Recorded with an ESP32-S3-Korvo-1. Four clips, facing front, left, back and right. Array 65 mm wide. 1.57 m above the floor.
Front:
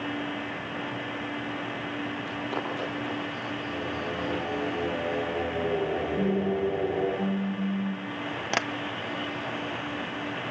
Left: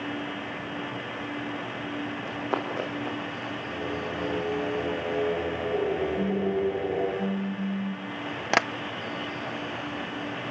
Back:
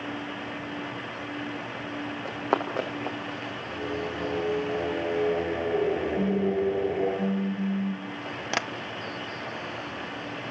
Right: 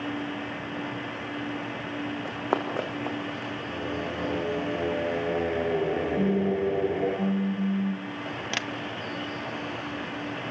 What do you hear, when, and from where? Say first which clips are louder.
2.2 s running footsteps: right 2 dB, back 4 dB; 140° right, 4.5 m; by 3.5 s 125° right, 5.5 m
3.7 s singing: even, back 3 dB; 105° right, 9.5 m
6.2 s a phone buzzing: right 1 dB, front 1 dB; 105° right, 2 m
8.5 s tapping: left 11 dB, front 1 dB; 90° left, 0.7 m